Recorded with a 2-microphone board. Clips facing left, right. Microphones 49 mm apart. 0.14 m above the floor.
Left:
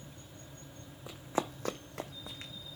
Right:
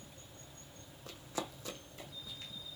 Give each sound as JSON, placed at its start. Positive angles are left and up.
{"t": 1.1, "sound": "running footsteps", "side_deg": 15, "distance_m": 0.5}